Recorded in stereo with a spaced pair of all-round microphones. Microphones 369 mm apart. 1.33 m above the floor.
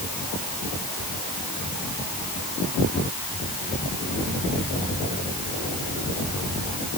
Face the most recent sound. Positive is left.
No sound to turn to.